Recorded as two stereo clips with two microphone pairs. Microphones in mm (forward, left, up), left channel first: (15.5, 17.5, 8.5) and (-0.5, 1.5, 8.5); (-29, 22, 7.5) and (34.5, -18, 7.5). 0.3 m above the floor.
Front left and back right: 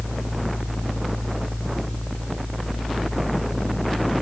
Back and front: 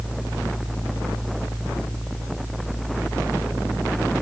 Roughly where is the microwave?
No microwave in this recording.